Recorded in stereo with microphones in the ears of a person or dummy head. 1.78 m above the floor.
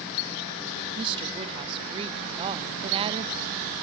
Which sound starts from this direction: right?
A woman speaking, at 1.0 s.